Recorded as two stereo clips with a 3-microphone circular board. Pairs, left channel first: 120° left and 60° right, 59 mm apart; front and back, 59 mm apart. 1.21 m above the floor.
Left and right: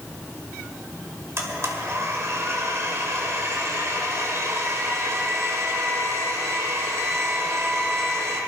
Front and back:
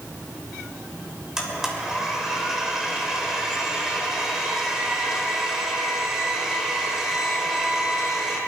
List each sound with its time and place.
1.4 s a blender: 100° right, 2.5 m